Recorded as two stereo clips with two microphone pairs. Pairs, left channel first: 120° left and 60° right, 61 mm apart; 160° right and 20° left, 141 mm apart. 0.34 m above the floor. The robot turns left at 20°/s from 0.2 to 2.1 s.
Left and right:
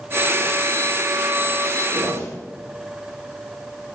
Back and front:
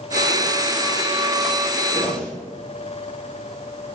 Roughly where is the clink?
No clink in this recording.